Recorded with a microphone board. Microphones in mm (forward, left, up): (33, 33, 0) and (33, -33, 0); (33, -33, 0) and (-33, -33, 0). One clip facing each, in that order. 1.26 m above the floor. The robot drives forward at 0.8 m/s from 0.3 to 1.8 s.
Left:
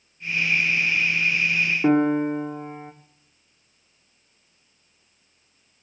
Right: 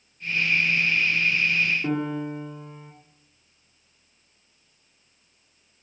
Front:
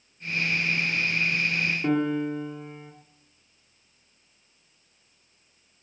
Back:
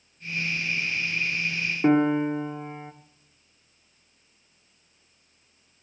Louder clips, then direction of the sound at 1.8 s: Left 8 dB, back 6 dB; 125° left.